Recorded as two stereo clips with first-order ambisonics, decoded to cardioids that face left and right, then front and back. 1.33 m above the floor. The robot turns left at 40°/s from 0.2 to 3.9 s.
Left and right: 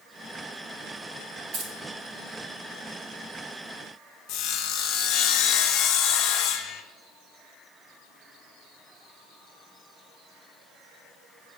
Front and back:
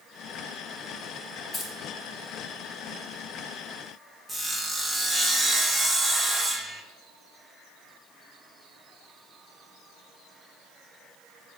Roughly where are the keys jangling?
Ahead right.